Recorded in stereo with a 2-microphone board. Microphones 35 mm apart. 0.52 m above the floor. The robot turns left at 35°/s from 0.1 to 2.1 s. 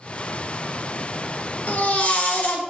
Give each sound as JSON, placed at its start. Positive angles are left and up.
{"t": 1.7, "sound": "a baby crying", "side_deg": 55, "distance_m": 0.9}